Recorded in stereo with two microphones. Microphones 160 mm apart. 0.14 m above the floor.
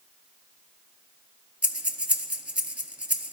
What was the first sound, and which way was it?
Breathing, 10° right (ahead or behind).